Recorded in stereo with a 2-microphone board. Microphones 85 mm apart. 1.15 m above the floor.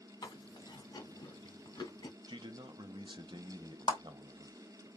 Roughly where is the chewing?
Left.